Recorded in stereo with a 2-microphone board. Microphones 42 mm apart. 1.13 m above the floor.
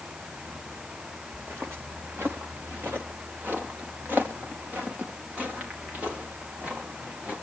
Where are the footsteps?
75° right (ahead or behind), 4.5 m; by 7.3 s 30° right (ahead or behind), 8.5 m.